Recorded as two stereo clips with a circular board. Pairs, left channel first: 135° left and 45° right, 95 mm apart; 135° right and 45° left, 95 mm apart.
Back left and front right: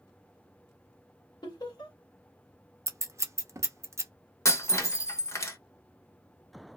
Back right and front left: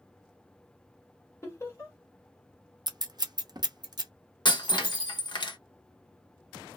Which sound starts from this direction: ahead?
Scissors, at 2.9 s.